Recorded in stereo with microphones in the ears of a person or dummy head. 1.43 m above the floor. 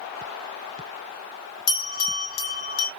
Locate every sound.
1.7 s a bell: 80° left, 1.3 m